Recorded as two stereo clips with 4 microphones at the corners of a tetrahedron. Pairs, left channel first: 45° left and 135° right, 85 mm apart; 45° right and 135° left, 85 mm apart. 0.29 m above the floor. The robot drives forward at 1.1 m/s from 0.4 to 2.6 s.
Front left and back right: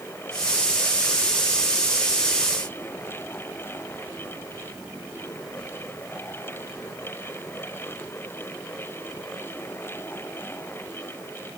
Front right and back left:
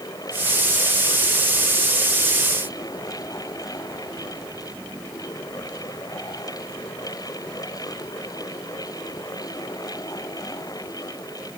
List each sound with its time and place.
Only background noise.